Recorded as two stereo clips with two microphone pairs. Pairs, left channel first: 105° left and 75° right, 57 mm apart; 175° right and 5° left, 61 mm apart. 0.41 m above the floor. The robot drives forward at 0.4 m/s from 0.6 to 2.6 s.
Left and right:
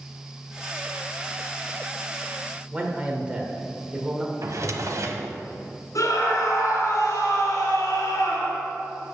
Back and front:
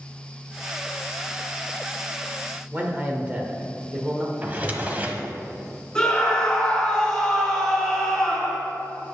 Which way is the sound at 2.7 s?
35° right.